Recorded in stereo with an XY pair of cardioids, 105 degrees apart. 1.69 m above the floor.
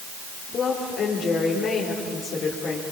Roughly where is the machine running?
I don't hear a machine running.